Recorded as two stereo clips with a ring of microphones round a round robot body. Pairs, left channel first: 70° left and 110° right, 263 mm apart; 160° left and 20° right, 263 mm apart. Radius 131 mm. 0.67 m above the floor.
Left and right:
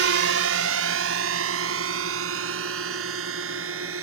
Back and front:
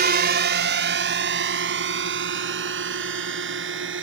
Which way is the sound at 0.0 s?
75° right.